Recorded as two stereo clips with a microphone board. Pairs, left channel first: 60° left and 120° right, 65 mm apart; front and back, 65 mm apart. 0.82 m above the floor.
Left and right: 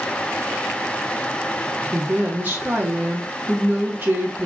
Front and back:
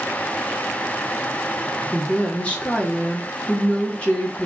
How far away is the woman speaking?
About 0.8 m.